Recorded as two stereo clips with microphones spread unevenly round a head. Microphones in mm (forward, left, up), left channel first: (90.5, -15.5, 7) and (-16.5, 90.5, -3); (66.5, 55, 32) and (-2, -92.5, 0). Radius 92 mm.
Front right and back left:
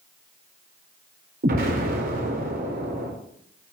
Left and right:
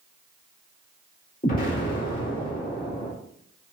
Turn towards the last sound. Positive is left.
turn(degrees=115)